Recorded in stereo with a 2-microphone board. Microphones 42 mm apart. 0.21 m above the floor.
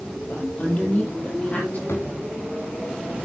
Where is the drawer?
85° left, 2 m.